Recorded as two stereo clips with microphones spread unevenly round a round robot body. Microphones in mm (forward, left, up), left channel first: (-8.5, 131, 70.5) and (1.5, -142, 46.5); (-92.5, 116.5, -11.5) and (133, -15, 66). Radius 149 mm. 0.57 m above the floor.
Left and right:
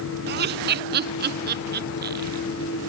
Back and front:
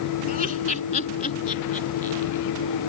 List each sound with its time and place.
0.3 s laughter: 140° right; by 2.4 s 145° right